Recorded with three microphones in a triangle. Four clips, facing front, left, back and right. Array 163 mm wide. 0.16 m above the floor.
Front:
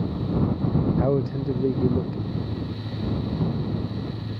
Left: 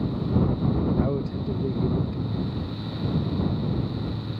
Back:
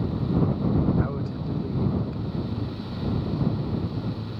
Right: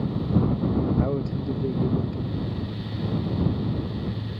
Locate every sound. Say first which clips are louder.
1.0 s a man speaking: even, front 6 dB; 5° right